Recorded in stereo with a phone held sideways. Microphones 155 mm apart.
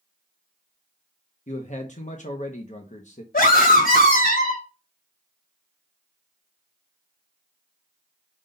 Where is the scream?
70° left (ahead or behind), 1.1 m.